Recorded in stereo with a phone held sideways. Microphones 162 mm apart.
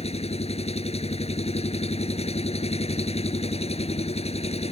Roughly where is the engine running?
Left.